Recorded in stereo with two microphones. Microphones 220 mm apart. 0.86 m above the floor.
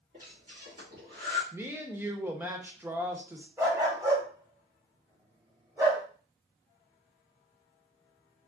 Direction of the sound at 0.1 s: 45° right (ahead or behind).